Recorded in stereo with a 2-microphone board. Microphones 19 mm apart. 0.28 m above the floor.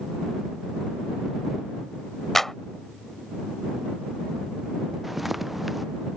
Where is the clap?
15° left (ahead or behind).